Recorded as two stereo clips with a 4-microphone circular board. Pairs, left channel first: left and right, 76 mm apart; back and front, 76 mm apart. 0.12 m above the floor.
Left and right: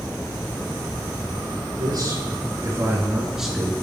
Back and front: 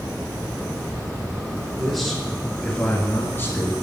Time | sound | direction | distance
1.7 | a man speaking | 90° right | 3 m